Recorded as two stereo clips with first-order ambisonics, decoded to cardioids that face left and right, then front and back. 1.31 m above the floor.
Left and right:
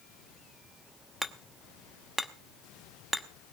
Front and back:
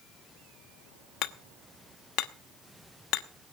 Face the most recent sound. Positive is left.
turn(degrees=0)